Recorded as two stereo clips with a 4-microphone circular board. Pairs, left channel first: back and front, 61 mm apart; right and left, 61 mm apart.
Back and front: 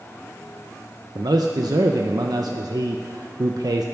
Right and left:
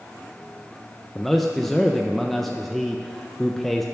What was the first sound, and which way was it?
A man speaking, 5° right.